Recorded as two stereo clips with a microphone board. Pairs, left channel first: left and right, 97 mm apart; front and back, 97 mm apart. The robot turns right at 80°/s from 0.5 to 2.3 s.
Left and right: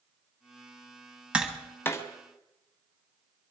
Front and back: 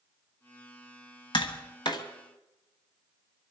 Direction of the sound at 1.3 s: 15° right.